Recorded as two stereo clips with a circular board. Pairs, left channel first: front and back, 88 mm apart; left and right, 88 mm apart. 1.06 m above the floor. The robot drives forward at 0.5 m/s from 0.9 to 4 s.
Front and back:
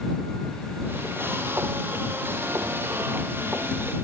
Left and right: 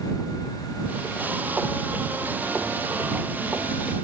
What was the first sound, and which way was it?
Only background noise.